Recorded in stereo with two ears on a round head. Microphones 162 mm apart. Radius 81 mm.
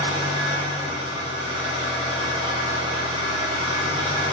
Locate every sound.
0.0 s an engine running: 25° right (ahead or behind), 0.9 m